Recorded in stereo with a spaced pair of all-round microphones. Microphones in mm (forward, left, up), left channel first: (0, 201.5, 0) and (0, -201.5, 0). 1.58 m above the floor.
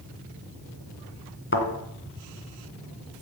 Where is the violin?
No violin in this recording.